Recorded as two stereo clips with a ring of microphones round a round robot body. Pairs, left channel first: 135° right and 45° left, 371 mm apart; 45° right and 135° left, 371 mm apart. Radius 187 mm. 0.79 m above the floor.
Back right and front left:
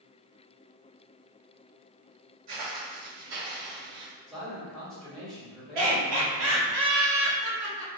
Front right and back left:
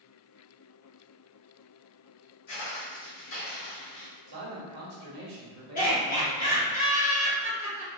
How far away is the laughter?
About 1.7 m.